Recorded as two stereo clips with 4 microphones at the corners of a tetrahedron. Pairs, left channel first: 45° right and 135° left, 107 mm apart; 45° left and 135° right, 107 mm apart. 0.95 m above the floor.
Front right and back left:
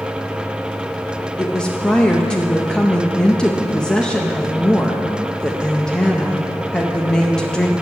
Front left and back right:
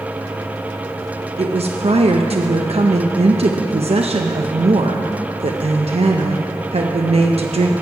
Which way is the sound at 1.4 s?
125° right.